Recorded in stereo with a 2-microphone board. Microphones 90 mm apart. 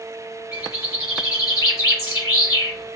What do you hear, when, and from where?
0.5 s a bird: 35° left (ahead or behind), 3.5 m